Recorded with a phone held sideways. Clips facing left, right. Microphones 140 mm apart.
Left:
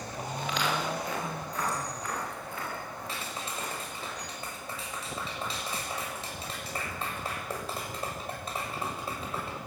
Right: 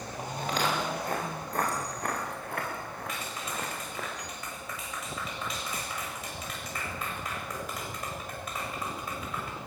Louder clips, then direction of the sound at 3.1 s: Even; 30° left (ahead or behind).